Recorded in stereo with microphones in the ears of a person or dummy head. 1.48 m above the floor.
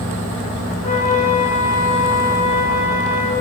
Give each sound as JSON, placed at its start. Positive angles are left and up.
{"t": 0.8, "sound": "a flute", "side_deg": 35, "distance_m": 1.9}